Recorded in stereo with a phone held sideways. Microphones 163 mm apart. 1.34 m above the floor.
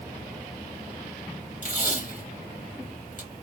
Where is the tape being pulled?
55° left (ahead or behind), 1.7 m.